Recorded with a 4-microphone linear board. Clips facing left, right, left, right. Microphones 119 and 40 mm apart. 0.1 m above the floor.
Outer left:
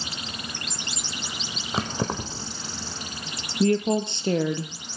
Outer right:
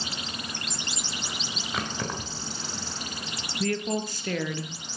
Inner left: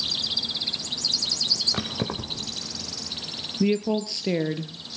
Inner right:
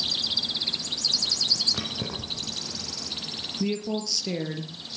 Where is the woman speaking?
25° left (ahead or behind), 2.0 m.